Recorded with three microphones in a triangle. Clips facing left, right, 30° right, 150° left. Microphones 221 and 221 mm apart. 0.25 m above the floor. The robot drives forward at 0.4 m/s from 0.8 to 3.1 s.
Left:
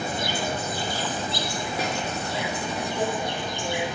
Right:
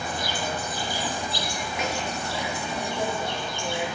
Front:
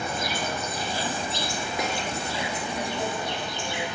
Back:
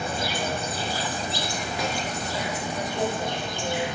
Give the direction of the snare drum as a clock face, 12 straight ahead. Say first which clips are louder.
Even, even; 11 o'clock.